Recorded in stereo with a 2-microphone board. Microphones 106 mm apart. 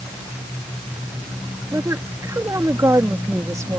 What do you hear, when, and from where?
1.7 s a woman speaking: 30° right (ahead or behind)